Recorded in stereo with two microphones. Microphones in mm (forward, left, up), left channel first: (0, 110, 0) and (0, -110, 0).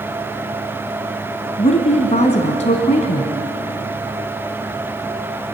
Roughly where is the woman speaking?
Left.